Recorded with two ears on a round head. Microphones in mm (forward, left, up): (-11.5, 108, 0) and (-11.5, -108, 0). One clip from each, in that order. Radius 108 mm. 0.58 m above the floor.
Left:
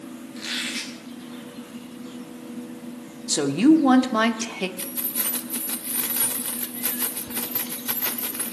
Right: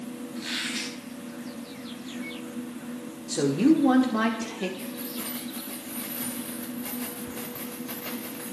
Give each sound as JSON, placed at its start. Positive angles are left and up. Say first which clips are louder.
{"t": 0.3, "sound": "a squeak", "louder": "left 2 dB", "side_deg": 25, "distance_m": 5.5}
{"t": 3.3, "sound": "a woman speaking", "louder": "left 4 dB", "side_deg": 40, "distance_m": 1.2}
{"t": 4.8, "sound": "keys jangling", "louder": "left 3 dB", "side_deg": 55, "distance_m": 1.1}